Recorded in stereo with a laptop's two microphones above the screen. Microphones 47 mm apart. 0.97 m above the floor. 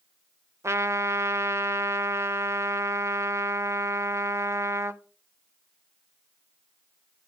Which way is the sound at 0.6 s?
80° right.